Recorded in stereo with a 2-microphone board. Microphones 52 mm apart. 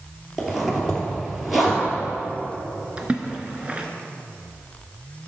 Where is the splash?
20° right (ahead or behind), 1.1 m.